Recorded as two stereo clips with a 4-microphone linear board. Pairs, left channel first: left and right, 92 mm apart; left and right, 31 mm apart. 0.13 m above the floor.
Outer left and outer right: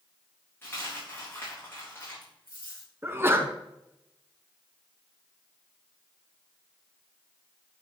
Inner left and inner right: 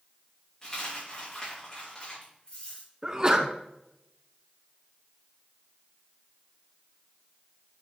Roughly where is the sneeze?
Right.